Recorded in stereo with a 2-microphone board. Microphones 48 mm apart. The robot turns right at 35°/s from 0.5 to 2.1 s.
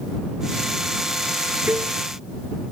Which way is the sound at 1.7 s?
40° right (ahead or behind).